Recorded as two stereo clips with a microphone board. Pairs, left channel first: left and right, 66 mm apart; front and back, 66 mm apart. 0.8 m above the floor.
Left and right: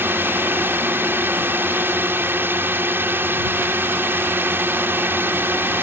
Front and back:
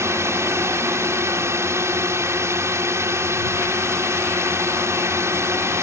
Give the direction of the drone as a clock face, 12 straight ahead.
5 o'clock.